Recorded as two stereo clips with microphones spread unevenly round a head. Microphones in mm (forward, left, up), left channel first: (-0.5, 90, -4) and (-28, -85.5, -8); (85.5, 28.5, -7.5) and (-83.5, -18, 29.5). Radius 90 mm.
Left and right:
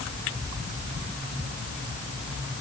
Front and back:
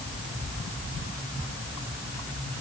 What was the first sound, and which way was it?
Only background noise.